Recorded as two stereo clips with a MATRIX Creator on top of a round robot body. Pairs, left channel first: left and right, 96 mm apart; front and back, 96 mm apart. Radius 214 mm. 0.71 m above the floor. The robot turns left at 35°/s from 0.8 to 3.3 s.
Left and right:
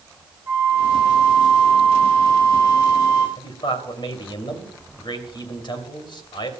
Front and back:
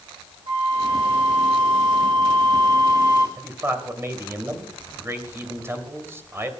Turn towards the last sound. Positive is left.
turn(degrees=120)